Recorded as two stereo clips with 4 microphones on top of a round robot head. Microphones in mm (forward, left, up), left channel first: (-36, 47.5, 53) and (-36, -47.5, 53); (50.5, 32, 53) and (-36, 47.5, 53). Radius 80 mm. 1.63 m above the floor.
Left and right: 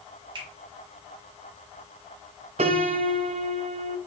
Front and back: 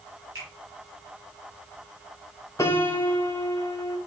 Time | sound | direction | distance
0.3 | a finger snap | 120° right | 4.5 m
2.6 | a piano | 80° right | 0.7 m